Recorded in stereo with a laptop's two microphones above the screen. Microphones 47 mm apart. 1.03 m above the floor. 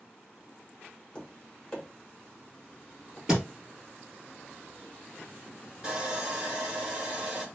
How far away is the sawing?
About 1.0 m.